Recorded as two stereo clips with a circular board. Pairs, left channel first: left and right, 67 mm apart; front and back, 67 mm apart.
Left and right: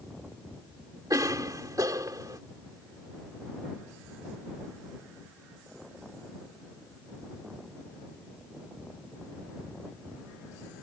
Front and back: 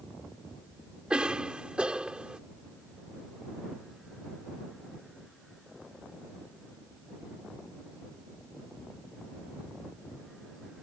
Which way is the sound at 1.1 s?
105° right.